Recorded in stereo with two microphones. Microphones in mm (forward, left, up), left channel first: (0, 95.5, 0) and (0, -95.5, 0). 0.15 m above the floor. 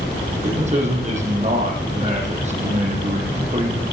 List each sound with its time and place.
0.4 s a man speaking: 40° right (ahead or behind), 7 m